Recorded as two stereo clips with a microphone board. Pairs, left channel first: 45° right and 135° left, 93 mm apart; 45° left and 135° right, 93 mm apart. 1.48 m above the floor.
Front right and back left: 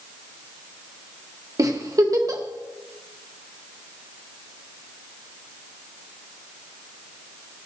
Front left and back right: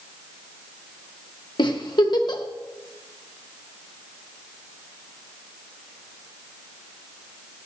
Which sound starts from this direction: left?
A giggle, at 1.6 s.